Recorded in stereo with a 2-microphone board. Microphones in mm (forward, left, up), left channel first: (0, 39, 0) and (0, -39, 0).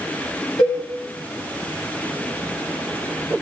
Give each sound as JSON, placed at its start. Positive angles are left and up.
{"t": 0.6, "sound": "a cowbell", "side_deg": 75, "distance_m": 4.0}